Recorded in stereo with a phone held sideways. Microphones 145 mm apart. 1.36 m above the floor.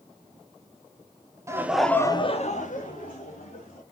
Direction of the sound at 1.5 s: 20° right (ahead or behind).